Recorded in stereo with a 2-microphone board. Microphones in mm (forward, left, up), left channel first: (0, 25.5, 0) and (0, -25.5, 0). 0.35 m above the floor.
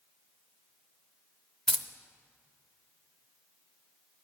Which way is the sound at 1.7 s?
10° left (ahead or behind).